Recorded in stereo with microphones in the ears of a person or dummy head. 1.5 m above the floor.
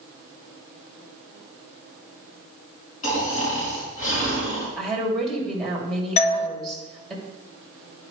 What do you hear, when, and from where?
3.0 s snoring: 45° left (ahead or behind), 5 m
4.8 s a woman speaking: centre (ahead or behind), 2.5 m
6.2 s a doorbell: 40° left (ahead or behind), 0.8 m